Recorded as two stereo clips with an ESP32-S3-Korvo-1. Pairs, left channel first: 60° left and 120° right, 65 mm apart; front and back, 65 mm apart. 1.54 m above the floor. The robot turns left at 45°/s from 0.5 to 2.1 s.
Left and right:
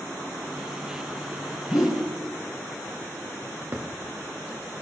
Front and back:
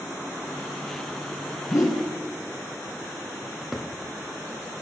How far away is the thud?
About 1.1 m.